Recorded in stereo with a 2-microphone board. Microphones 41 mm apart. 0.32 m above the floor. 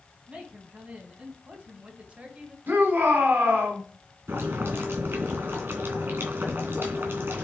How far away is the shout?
About 3.5 m.